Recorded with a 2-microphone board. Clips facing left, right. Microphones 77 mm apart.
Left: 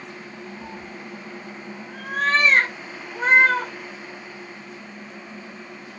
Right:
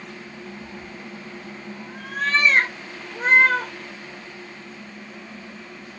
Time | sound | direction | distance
0.6 | a cat meowing | 55° left (ahead or behind) | 0.9 m